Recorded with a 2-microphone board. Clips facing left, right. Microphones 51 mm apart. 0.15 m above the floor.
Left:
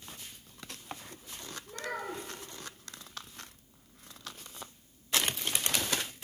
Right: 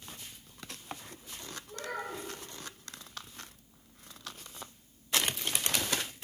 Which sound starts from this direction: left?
A child speaking, at 1.7 s.